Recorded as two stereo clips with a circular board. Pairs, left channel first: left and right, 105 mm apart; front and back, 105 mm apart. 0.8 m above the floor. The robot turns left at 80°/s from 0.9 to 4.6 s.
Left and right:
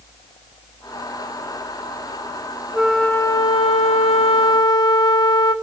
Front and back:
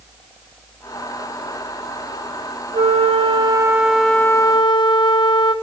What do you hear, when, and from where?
2.7 s a flute: 170° right, 0.6 m; by 5.5 s 40° left, 0.6 m